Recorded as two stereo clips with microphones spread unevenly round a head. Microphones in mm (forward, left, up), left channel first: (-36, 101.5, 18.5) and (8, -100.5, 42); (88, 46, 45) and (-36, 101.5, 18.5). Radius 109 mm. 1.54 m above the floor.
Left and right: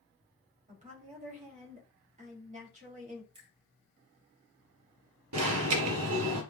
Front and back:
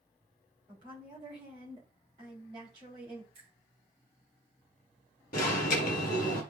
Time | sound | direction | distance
0.7 | a woman speaking | 135° right | 3 m
3.3 | a finger snap | 140° right | 3 m
5.3 | an alarm | 70° right | 2 m